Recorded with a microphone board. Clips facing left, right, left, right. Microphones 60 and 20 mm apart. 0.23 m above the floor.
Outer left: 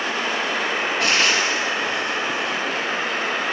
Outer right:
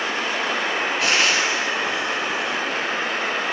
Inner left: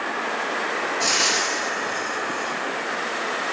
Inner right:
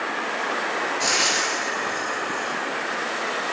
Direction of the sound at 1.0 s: Centre (ahead or behind).